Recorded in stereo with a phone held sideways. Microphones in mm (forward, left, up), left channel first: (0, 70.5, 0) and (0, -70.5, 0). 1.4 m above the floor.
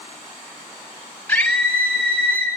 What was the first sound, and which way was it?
A scream, 10° left (ahead or behind).